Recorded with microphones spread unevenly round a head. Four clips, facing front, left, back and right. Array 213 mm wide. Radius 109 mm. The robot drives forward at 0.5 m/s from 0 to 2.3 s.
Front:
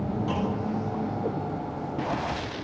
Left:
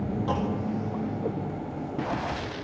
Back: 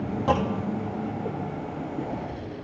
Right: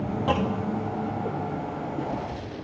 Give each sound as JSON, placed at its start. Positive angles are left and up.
{"t": 0.3, "sound": "a clunk", "azimuth_deg": -145, "distance_m": 2.5}